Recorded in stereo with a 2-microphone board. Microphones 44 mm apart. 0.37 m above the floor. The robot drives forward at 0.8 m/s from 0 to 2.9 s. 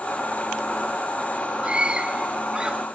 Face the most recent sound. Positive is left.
turn(degrees=-20)  # may be behind; listen again after turning